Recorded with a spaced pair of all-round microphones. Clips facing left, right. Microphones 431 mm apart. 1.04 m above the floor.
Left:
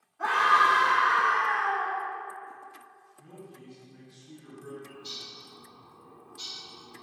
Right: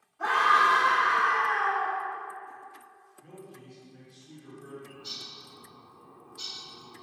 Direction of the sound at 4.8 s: 25° right (ahead or behind).